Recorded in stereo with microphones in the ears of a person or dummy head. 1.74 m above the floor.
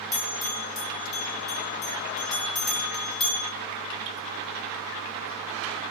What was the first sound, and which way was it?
A bell, 30° left (ahead or behind).